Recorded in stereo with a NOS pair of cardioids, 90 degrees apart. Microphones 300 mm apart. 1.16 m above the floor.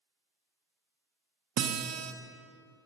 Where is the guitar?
60° right, 1.0 m.